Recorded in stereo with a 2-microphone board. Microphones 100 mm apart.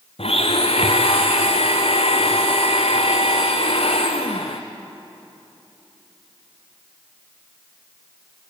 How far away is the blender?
About 1.7 m.